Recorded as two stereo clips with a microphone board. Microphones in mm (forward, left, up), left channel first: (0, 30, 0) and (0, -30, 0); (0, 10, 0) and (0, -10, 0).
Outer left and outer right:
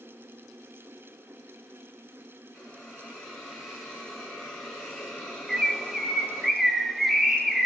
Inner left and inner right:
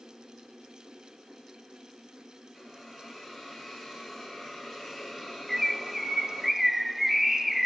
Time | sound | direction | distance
2.5 | a hiss | 10° left (ahead or behind) | 5.5 m
5.5 | a bird | centre (ahead or behind) | 1.2 m